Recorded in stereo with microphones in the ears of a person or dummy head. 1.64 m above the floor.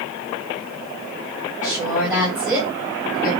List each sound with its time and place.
1.6 s a woman speaking: 10° right (ahead or behind), 0.9 m